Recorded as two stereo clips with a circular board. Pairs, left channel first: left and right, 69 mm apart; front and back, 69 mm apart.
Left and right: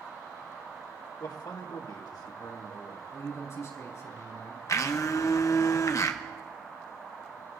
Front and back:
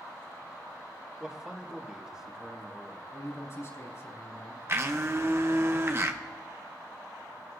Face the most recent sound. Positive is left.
turn(degrees=130)